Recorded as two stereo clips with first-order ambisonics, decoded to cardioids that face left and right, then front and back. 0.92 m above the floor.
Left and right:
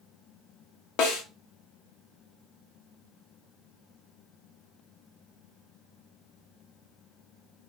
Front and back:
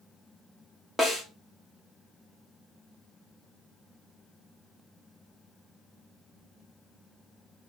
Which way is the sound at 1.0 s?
90° left.